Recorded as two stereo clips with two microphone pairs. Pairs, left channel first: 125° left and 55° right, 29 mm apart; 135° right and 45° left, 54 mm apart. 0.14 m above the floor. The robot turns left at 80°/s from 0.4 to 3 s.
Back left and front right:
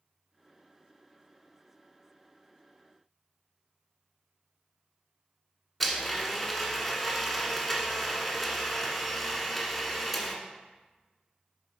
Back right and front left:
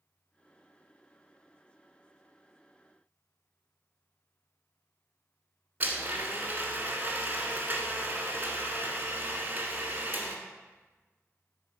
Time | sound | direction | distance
5.8 | a blender | 40° left | 1.3 m